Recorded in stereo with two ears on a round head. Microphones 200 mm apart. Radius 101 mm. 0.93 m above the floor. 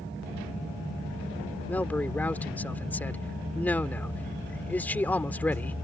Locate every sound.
1.7 s a man speaking: 10° left (ahead or behind)